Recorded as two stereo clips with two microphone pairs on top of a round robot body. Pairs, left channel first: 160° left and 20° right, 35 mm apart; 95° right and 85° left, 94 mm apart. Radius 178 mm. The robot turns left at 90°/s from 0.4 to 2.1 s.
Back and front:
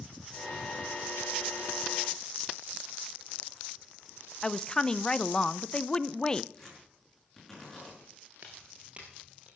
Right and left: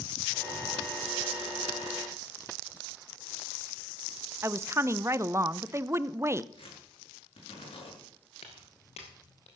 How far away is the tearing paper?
About 6.5 m.